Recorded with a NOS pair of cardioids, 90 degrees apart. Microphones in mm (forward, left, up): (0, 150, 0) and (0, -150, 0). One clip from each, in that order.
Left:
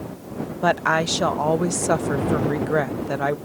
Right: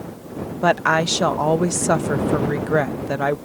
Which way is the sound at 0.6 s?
10° right.